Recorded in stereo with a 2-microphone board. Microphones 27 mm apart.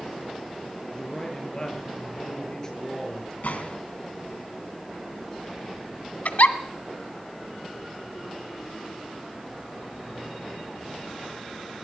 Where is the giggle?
75° left (ahead or behind), 1.4 m.